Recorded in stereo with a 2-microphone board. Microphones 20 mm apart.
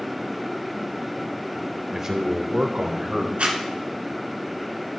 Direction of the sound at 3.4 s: 80° right.